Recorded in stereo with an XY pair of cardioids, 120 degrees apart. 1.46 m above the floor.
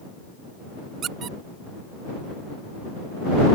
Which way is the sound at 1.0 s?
60° right.